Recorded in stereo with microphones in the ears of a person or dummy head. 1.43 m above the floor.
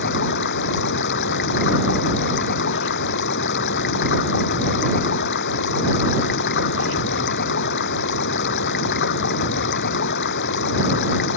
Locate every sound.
0.0 s running water: 55° left (ahead or behind)